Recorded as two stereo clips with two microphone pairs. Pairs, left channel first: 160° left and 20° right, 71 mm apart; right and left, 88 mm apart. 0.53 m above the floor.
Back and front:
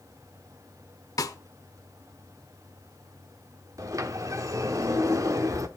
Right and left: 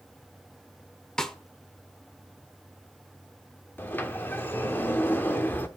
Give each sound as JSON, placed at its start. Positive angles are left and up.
{"t": 1.2, "sound": "a snare drum", "azimuth_deg": -175, "distance_m": 0.7}
{"t": 3.8, "sound": "a sliding door", "azimuth_deg": -25, "distance_m": 0.8}